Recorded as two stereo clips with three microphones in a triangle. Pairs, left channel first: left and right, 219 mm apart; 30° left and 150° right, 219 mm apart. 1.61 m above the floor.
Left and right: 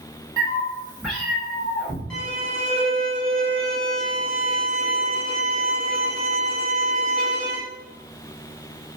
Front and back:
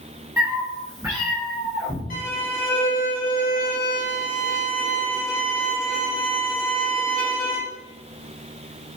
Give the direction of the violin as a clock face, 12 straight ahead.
12 o'clock.